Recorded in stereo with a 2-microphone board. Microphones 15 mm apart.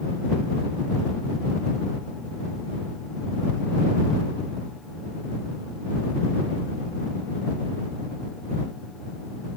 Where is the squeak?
No squeak in this recording.